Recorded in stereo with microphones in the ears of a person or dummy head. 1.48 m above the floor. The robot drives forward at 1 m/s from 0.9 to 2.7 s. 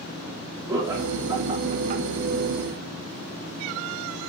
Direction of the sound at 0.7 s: 20° right (ahead or behind).